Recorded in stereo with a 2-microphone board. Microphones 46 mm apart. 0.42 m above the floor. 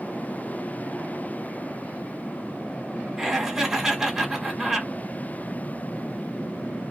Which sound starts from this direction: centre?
Laughter, at 3.2 s.